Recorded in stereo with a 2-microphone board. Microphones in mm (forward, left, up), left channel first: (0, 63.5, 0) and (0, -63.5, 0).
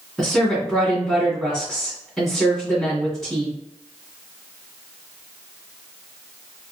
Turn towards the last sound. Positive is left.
turn(degrees=0)  # may be behind; listen again after turning